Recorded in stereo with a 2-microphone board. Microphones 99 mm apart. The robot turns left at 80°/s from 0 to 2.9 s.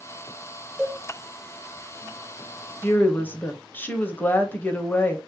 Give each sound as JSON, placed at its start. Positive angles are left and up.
{"t": 0.8, "sound": "a cowbell", "side_deg": -10, "distance_m": 0.6}
{"t": 2.8, "sound": "a woman speaking", "side_deg": 15, "distance_m": 0.6}